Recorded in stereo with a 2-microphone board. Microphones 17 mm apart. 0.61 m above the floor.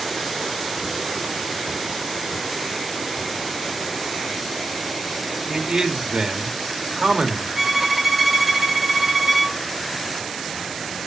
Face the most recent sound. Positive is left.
turn(degrees=-15)  # may be behind; listen again after turning